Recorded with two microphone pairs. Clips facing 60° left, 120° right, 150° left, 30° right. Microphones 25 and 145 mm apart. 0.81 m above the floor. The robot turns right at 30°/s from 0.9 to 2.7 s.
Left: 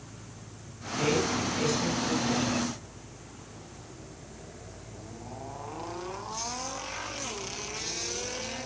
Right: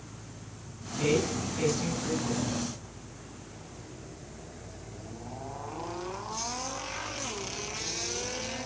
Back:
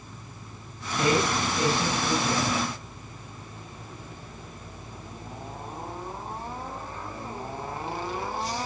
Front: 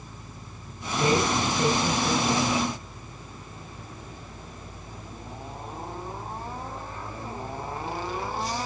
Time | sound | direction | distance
1.0 | a woman speaking | 120° left | 5.5 m